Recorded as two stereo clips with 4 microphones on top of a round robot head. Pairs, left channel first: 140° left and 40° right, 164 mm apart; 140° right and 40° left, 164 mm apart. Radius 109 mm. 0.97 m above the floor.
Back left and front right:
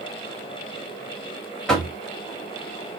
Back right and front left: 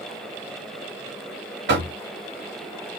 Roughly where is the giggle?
I don't hear a giggle.